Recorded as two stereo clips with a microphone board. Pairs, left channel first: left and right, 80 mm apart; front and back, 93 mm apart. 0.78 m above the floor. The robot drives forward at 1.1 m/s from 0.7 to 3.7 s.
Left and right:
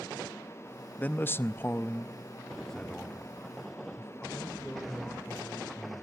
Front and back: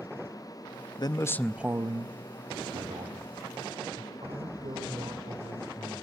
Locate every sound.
1.0 s a man speaking: 20° left, 0.8 m; by 6.0 s 175° left, 2.5 m